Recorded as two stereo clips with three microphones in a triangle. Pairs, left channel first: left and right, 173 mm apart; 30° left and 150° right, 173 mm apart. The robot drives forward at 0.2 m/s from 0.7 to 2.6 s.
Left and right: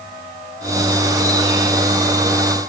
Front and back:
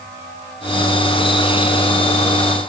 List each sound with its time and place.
Only background noise.